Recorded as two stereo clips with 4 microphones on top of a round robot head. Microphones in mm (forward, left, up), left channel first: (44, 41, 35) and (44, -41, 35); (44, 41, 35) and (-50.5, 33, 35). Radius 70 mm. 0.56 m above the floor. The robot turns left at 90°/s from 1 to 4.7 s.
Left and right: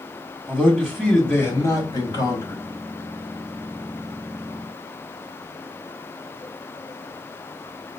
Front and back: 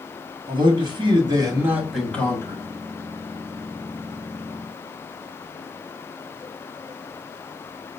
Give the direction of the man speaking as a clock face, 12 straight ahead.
6 o'clock.